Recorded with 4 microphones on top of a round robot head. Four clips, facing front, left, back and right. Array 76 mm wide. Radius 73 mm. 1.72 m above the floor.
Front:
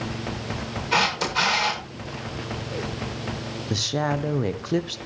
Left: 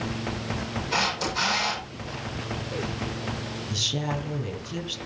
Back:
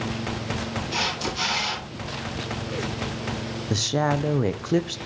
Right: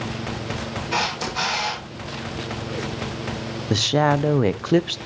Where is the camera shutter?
5° right, 7.5 m.